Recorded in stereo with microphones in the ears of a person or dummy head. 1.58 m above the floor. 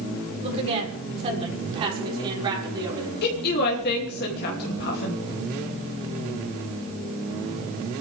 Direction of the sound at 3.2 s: 60° left (ahead or behind).